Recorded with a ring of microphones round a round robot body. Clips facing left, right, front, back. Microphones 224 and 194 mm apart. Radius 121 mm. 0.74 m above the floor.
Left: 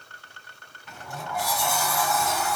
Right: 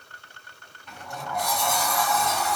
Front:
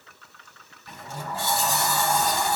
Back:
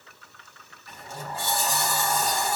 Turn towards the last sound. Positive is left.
turn(degrees=5)